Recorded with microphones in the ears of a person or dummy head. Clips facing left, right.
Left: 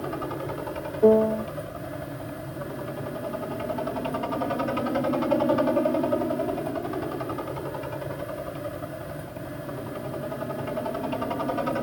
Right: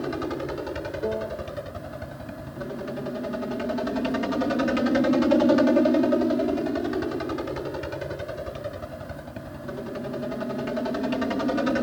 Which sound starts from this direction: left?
A piano, at 1.0 s.